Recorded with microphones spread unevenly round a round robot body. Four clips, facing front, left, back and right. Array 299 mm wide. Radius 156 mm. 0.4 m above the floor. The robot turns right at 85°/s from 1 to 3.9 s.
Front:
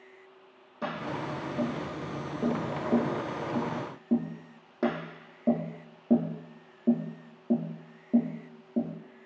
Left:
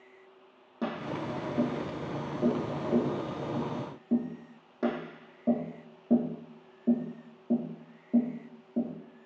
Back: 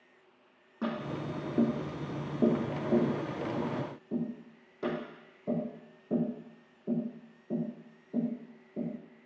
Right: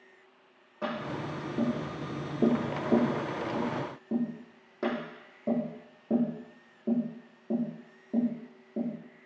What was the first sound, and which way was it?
Tapping, 110° left.